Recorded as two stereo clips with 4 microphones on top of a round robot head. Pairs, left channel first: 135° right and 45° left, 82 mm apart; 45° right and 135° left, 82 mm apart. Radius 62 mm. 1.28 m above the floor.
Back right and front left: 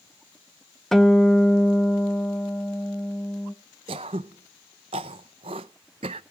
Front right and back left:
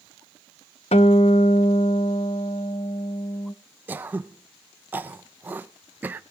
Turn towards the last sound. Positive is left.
turn(degrees=65)